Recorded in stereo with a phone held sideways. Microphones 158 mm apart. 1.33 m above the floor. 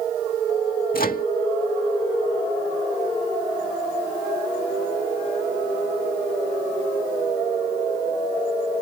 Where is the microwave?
70° left (ahead or behind).